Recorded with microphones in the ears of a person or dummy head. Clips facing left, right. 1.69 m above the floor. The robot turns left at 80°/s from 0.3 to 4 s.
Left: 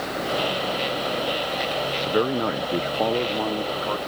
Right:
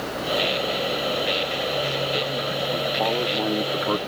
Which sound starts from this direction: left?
A man speaking, at 2.0 s.